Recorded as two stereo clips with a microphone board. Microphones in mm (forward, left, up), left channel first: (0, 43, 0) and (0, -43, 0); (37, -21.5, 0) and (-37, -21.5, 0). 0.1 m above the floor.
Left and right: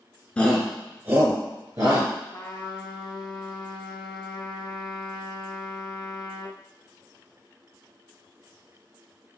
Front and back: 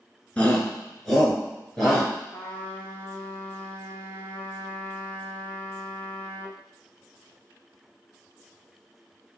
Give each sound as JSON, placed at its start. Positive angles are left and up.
{"t": 0.4, "sound": "a shout", "azimuth_deg": 40, "distance_m": 1.6}
{"t": 2.3, "sound": "a trumpet", "azimuth_deg": 65, "distance_m": 1.2}